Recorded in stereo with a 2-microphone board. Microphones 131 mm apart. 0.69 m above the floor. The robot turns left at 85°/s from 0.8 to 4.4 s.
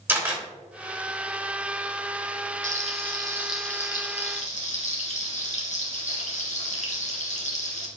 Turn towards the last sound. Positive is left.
turn(degrees=110)